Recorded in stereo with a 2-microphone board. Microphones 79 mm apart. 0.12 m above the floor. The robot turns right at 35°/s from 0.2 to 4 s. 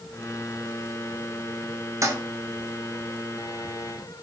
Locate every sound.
2.0 s a toilet flushing: 45° right (ahead or behind), 0.8 m; by 2.1 s 40° right (ahead or behind), 0.8 m